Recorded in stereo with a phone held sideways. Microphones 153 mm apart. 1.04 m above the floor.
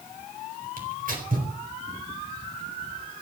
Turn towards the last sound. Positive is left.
turn(degrees=-65)  # may be behind; listen again after turning